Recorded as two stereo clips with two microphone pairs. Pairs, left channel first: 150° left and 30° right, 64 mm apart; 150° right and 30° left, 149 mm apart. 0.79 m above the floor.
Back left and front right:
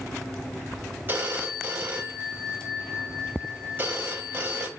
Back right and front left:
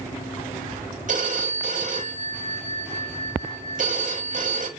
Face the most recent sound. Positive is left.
turn(degrees=25)